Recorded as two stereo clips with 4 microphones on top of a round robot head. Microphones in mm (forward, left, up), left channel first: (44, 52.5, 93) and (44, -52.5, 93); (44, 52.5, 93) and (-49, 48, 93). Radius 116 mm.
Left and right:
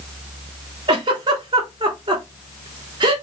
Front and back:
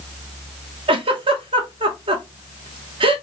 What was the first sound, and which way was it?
A giggle, 145° right.